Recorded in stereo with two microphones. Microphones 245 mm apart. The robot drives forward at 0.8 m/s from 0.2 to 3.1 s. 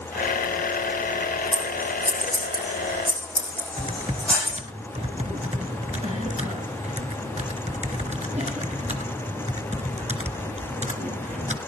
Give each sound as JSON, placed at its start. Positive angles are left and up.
{"t": 1.5, "sound": "scissors", "side_deg": 5, "distance_m": 5.0}
{"t": 3.8, "sound": "typing on a keyboard", "side_deg": -30, "distance_m": 1.8}